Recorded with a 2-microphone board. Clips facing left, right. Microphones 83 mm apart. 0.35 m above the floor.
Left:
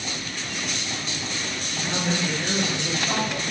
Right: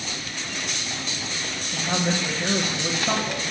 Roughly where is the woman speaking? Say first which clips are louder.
Right 2 dB; right.